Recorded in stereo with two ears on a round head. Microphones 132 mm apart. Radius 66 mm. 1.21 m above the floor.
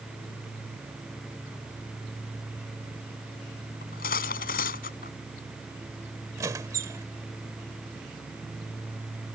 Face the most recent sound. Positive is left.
turn(degrees=-25)  # may be behind; listen again after turning